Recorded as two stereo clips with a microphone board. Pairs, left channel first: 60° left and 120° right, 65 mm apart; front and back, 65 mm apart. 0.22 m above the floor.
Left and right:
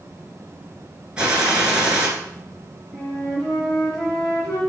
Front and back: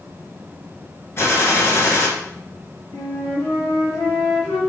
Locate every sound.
1.2 s a gunshot: 45° right, 2 m
2.9 s a flute: 30° right, 3.5 m